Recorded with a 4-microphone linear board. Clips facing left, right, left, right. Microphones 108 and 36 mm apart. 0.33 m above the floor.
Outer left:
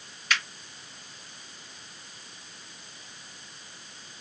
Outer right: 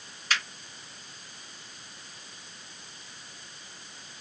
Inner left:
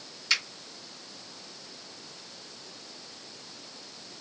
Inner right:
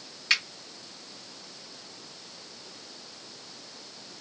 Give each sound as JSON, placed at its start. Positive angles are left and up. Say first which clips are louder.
{"t": 0.3, "sound": "a finger snap", "louder": "outer left 1 dB, inner right 2 dB", "side_deg": -35, "distance_m": 1.5}